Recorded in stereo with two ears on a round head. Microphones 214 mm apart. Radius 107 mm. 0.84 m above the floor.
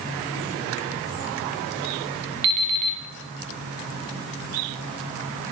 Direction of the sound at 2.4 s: 75° right (ahead or behind).